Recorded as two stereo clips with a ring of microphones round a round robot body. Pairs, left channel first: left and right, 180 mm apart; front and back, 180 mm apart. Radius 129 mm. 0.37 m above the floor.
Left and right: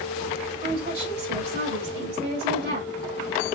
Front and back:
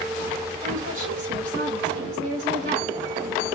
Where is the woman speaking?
135° right, 1.5 m.